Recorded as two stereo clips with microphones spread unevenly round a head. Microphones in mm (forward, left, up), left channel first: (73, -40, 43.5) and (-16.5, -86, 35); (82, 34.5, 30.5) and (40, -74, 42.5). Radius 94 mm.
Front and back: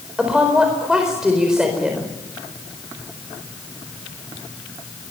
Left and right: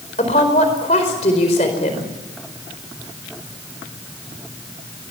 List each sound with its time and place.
0.2 s a woman speaking: 120° left, 4.5 m